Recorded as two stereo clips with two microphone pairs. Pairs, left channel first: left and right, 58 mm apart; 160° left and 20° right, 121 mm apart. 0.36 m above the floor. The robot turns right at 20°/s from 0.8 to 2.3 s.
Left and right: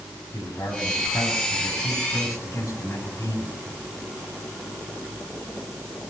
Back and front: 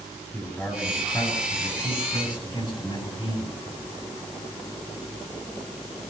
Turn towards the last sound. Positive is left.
turn(degrees=115)